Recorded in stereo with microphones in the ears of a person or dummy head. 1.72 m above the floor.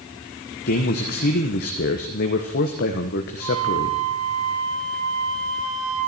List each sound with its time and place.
0.7 s a man speaking: 50° left (ahead or behind), 1.3 m
3.4 s a flute: 85° right, 8 m